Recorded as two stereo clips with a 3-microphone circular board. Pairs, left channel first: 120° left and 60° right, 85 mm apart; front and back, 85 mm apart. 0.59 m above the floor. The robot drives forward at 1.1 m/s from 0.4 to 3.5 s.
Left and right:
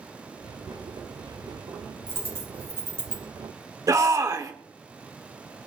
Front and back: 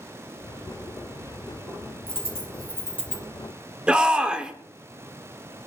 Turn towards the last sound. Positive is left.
turn(degrees=-105)